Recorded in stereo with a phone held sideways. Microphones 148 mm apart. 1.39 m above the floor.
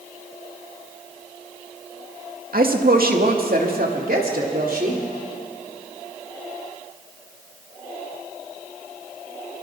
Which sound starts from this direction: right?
A woman speaking, at 2.5 s.